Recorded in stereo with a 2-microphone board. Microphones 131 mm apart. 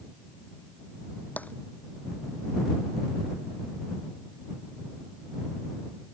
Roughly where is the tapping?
Centre.